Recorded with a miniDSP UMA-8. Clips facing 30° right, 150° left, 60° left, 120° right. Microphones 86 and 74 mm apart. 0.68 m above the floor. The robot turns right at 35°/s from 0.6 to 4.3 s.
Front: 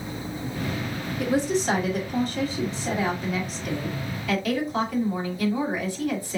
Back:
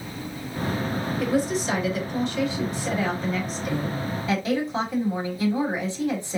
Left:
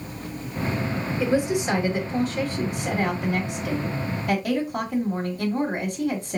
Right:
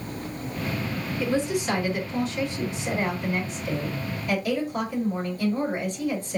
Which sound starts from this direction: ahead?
A woman speaking, at 1.2 s.